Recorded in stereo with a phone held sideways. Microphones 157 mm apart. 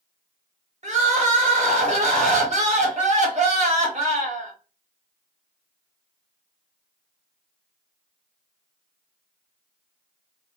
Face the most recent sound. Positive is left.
turn(degrees=-50)  # may be behind; listen again after turning